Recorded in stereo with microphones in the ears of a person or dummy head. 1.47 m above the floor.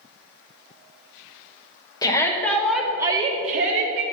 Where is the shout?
20° left (ahead or behind), 1.4 m; by 4.0 s 70° right (ahead or behind), 0.9 m.